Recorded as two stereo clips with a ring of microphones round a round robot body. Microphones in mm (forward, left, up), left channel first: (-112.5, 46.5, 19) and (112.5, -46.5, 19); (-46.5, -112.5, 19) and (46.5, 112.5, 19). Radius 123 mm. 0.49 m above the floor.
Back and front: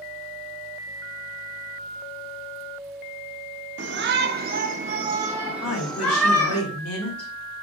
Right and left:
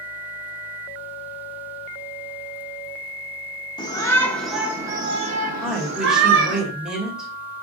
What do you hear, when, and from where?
3.8 s a shout: 45° right, 1.0 m; by 6.6 s 85° left, 1.1 m
5.6 s a woman speaking: 155° left, 2.5 m